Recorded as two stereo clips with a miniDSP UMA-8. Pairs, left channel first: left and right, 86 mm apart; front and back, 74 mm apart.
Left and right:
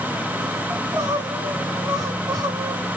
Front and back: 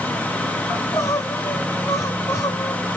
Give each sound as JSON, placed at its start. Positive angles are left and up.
{"t": 0.7, "sound": "crying", "azimuth_deg": -50, "distance_m": 1.5}